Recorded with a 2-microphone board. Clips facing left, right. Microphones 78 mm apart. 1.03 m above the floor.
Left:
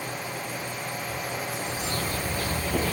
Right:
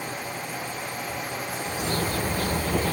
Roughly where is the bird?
Right.